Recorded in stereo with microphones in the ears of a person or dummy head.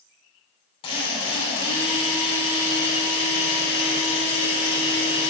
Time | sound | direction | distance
0.8 | a drill | 30° left (ahead or behind) | 6 m